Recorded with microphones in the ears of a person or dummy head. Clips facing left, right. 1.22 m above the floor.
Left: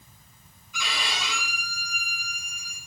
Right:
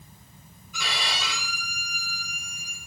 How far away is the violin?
About 5.5 m.